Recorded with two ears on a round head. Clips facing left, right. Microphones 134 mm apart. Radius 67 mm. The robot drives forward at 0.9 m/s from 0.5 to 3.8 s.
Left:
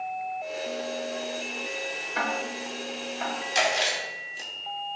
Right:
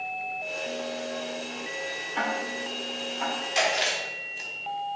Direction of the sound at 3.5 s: 50° left (ahead or behind).